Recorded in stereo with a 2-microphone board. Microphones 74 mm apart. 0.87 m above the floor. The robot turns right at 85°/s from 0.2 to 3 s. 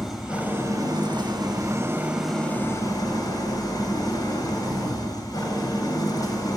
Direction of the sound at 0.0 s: Straight behind.